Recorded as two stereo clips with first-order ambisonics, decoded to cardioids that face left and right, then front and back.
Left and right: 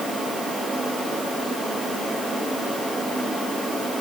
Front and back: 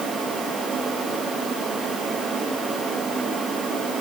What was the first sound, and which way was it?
Only background noise.